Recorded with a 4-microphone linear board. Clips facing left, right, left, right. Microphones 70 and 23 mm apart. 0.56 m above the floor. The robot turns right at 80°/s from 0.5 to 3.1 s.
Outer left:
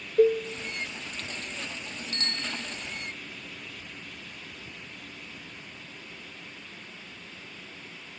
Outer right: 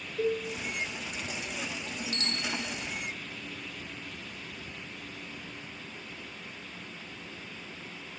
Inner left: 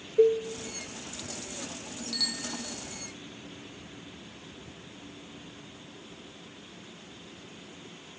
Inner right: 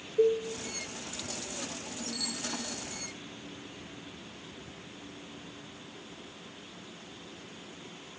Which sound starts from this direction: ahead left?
A bicycle bell, at 2.1 s.